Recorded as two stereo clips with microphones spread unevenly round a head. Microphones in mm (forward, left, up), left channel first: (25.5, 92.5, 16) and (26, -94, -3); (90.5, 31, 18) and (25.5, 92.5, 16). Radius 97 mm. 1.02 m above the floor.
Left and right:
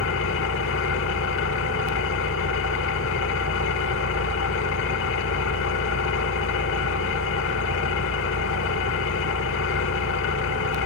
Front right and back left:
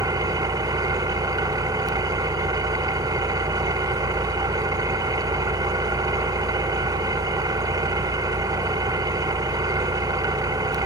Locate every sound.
0.0 s an engine running: 95° left, 1.4 m